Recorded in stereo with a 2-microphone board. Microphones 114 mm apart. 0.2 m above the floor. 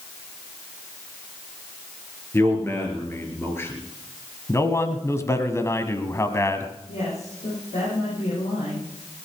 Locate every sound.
2.3 s a man speaking: 20° left (ahead or behind), 3.5 m
4.5 s a man speaking: 25° left (ahead or behind), 1.4 m
6.9 s a woman speaking: 75° left (ahead or behind), 9.5 m